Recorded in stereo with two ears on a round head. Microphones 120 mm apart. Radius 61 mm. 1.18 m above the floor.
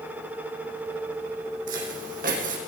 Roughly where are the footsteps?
Right.